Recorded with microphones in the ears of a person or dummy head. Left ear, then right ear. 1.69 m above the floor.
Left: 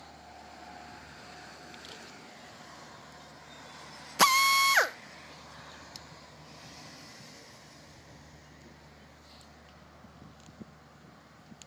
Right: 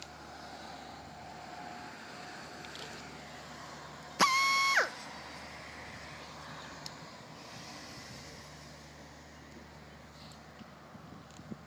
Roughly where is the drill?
Left.